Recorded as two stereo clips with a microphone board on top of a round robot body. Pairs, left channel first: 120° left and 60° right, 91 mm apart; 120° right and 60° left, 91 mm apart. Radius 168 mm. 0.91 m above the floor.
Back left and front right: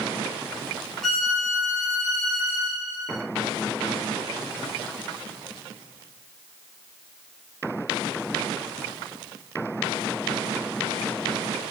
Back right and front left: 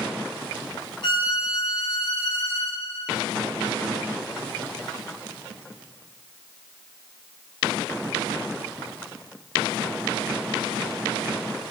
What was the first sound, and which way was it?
A violin, 150° right.